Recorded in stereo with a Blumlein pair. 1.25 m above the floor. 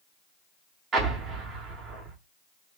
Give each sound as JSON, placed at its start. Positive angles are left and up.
{"t": 0.9, "sound": "an explosion", "azimuth_deg": -20, "distance_m": 1.1}